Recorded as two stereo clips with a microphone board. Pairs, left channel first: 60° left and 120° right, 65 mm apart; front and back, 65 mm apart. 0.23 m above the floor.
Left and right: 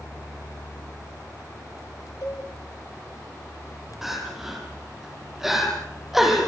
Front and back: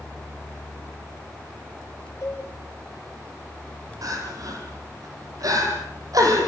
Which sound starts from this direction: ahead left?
A cowbell, at 2.2 s.